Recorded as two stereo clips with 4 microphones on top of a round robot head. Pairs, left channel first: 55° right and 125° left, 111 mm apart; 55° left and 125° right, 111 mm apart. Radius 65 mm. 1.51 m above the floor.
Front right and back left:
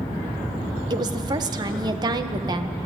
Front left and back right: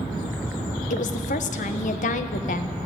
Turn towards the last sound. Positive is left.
turn(degrees=70)